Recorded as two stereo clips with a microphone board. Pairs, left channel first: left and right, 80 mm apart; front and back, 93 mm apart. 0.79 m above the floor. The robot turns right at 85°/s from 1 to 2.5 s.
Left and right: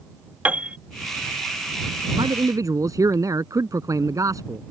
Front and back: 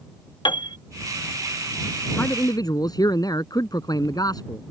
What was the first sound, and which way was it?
A piano, 20° right.